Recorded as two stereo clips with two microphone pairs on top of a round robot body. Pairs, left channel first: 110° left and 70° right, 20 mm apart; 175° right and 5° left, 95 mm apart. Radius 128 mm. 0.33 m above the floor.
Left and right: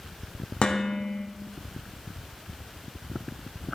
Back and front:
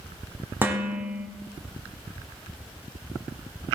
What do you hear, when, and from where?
0.6 s dishes clattering: 70° left, 1.8 m